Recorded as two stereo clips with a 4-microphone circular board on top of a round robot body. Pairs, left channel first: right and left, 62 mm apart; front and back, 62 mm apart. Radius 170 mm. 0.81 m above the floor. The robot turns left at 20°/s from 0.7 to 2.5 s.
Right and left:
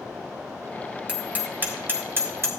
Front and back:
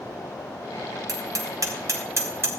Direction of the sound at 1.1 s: 160° left.